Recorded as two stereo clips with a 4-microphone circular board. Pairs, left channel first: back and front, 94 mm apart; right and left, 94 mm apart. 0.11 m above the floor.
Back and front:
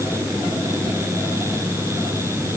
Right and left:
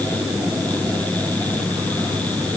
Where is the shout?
No shout in this recording.